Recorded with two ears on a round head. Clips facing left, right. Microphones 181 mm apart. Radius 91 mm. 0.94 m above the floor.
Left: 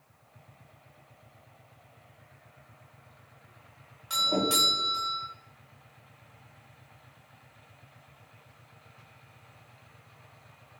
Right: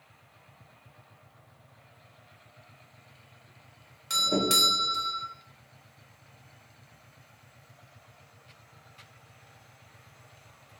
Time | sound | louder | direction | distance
4.1 | a doorbell | right 1 dB | 25° right (ahead or behind) | 0.8 m